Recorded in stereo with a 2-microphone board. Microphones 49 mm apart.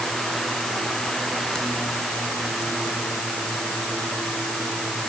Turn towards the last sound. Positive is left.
No sound to turn to.